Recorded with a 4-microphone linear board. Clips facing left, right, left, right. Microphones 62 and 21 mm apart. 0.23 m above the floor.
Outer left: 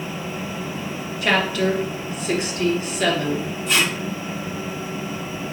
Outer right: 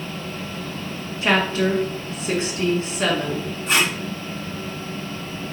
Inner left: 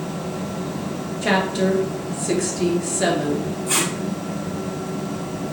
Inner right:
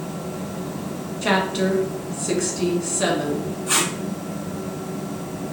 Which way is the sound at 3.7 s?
40° right (ahead or behind).